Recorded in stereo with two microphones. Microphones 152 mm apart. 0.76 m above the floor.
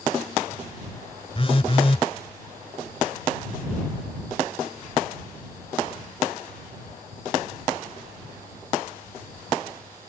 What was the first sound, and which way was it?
A phone buzzing, 40° left (ahead or behind).